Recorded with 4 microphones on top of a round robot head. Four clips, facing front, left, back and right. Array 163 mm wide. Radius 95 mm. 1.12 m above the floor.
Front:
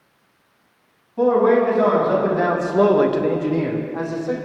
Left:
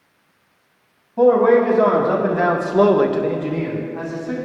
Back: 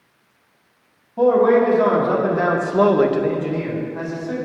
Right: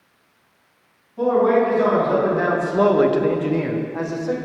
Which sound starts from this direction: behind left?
A man speaking, at 1.2 s.